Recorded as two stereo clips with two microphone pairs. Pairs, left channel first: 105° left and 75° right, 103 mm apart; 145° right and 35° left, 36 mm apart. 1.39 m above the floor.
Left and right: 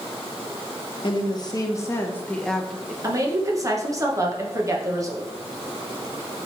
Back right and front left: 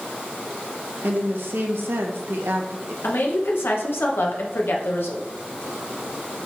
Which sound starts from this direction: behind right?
A woman speaking, at 3.0 s.